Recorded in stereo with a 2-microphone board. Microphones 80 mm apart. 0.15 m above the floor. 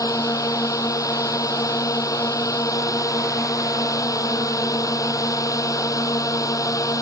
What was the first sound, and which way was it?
A drone, 45° left (ahead or behind).